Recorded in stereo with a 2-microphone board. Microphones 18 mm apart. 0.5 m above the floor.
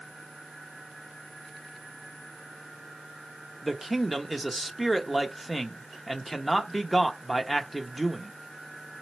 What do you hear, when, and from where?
3.6 s a man speaking: 5° right (ahead or behind), 0.8 m